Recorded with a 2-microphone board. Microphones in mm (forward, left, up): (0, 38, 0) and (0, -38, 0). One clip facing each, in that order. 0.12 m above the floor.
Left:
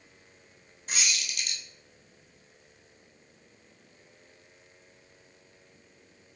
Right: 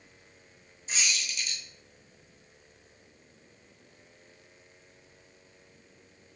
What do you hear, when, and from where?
0.9 s a squeak: 65° left (ahead or behind), 1.0 m